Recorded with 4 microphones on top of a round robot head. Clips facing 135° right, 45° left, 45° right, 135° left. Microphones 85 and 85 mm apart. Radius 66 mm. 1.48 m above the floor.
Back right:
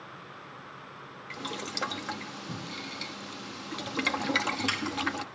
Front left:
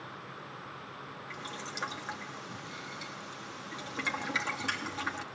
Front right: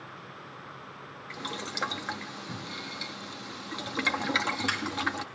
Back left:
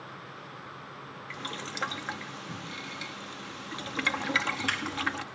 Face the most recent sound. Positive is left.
turn(degrees=-115)